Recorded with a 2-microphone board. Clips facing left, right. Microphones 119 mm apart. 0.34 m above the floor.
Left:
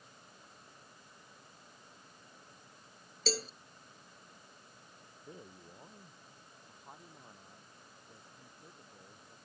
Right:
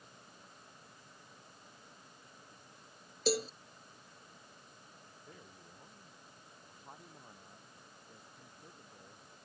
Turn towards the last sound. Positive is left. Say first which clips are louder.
# even
turn(degrees=0)  # may be behind; listen again after turning